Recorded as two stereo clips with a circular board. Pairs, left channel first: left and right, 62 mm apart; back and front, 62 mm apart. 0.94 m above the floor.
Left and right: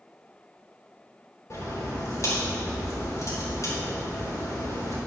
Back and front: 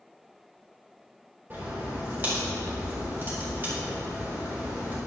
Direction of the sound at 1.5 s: 55° left.